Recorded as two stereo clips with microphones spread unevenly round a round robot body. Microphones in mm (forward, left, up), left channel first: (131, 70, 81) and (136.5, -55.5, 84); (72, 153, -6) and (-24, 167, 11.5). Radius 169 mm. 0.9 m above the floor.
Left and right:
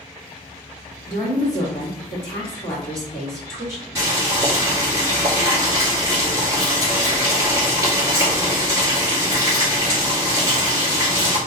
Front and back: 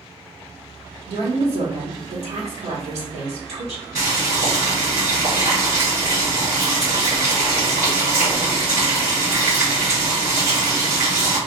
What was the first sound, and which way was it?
A woman speaking, 155° left.